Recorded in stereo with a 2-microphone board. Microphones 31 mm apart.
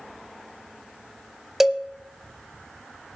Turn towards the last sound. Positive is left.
turn(degrees=-15)  # may be behind; listen again after turning